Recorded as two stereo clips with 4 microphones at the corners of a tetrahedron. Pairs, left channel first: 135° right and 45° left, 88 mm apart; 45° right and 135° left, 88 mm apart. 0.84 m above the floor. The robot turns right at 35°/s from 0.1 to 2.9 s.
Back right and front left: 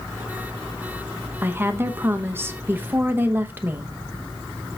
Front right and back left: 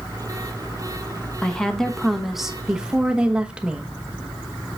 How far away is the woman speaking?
About 0.9 m.